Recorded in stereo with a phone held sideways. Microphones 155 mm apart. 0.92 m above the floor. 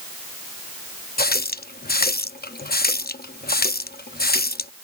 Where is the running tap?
80° left.